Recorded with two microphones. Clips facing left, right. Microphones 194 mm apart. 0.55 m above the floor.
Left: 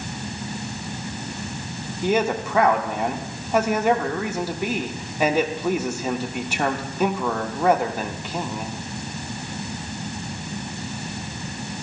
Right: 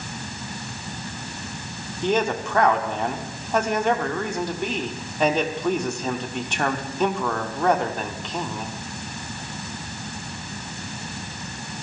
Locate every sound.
2.0 s a man speaking: 5° left (ahead or behind), 1.0 m